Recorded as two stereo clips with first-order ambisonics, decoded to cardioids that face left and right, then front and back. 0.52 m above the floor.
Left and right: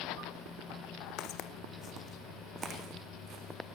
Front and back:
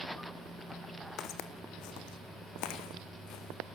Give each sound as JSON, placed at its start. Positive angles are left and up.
{"t": 1.2, "sound": "footsteps", "azimuth_deg": 50, "distance_m": 1.8}